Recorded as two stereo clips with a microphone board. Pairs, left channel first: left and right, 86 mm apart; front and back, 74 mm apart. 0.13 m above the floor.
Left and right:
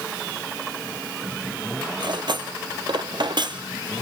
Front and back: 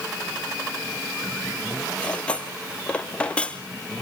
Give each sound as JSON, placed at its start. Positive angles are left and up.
{"t": 2.0, "sound": "cutlery clinking", "azimuth_deg": -70, "distance_m": 1.7}